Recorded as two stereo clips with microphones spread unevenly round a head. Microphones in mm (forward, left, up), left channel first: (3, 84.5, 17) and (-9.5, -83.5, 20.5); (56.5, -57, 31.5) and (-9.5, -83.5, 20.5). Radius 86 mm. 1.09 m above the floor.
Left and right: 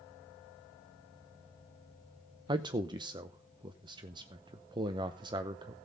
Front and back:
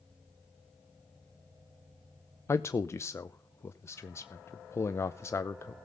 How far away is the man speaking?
About 0.7 m.